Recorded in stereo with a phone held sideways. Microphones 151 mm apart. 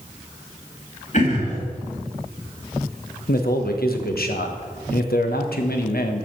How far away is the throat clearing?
About 3.5 m.